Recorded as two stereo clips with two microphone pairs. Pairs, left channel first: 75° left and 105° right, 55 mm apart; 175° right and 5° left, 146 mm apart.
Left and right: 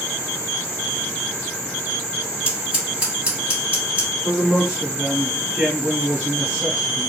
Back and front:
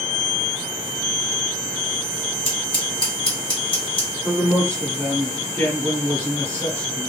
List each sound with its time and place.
2.5 s scissors: 160° right, 1.7 m
4.2 s a man speaking: 135° right, 1.1 m